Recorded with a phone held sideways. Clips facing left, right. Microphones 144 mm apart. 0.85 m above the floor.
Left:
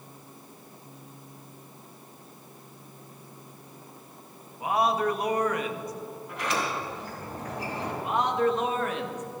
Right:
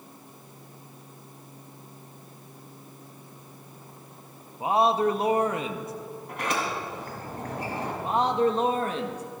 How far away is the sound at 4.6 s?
About 0.9 m.